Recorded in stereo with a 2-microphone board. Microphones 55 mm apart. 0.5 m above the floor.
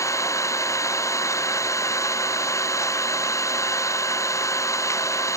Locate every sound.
0.0 s an engine running: 70° left (ahead or behind)